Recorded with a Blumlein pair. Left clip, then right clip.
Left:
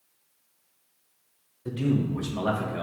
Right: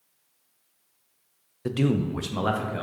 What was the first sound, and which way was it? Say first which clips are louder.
A man speaking: right 2 dB; 50° right.